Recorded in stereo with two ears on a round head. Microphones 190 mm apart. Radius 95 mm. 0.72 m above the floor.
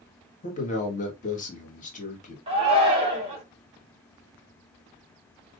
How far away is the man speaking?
About 1.4 m.